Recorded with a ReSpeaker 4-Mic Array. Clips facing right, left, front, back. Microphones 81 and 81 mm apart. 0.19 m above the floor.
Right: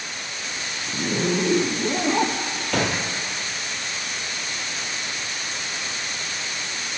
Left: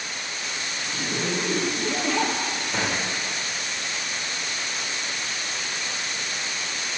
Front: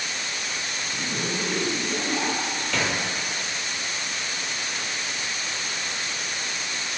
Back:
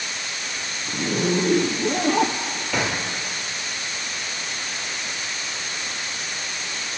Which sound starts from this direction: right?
A gunshot, at 2.7 s.